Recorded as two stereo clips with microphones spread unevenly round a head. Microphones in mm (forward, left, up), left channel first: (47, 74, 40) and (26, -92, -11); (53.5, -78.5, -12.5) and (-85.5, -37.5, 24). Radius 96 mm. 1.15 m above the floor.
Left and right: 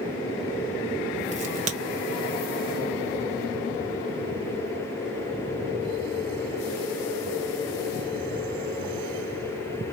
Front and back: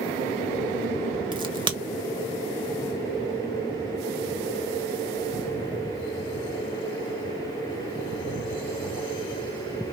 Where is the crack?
135° right, 1.2 m.